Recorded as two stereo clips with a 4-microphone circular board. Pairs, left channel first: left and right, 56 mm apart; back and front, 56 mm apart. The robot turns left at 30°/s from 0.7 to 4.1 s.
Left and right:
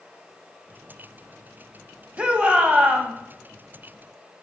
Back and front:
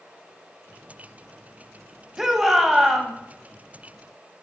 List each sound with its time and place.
2.2 s a shout: 75° right, 1.1 m; by 3.1 s 100° right, 1.1 m